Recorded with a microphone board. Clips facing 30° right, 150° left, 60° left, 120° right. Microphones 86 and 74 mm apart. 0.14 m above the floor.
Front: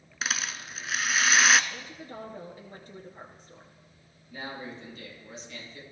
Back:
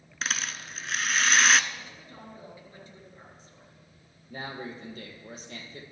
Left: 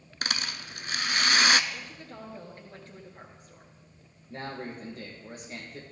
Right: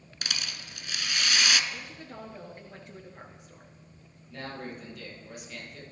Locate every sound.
0.2 s a rattle: 55° left, 0.6 m
1.7 s a woman speaking: 50° right, 2.5 m
4.3 s a man speaking: 110° left, 4 m